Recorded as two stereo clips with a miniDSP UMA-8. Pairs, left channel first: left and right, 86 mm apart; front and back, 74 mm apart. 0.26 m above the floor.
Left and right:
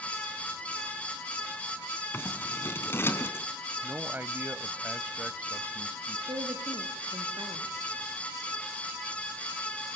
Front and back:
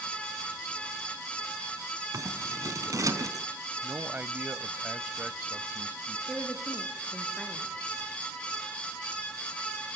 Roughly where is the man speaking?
Behind right.